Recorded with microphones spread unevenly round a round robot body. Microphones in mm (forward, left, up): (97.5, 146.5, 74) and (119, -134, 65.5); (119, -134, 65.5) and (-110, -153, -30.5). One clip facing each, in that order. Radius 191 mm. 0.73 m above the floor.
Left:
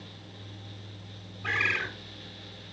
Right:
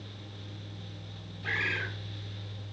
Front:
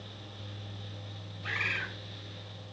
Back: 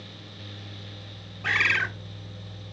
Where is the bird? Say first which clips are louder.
Left 2 dB, back 7 dB; 175° left, 0.8 m.